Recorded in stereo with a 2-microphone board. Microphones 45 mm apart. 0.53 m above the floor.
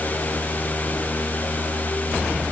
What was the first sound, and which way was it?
Only background noise.